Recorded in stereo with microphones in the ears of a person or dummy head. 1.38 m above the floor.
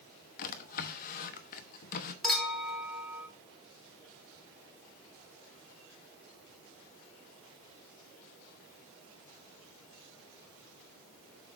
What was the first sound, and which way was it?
A drawer, 50° left (ahead or behind).